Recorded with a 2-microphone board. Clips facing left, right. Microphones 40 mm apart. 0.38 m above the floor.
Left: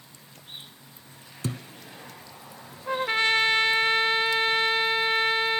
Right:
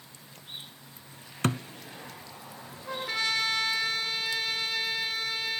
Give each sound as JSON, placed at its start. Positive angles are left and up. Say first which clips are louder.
{"t": 1.4, "sound": "a thud", "louder": "right 5 dB", "side_deg": -60, "distance_m": 0.8}
{"t": 2.9, "sound": "a trumpet", "louder": "left 7 dB", "side_deg": 40, "distance_m": 0.9}